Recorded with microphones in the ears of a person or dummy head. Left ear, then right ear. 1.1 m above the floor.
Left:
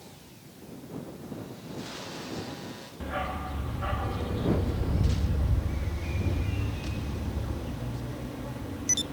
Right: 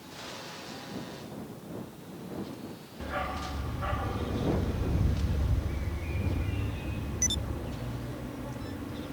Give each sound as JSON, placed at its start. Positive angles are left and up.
{"t": 3.0, "sound": "a dog barking", "side_deg": 5}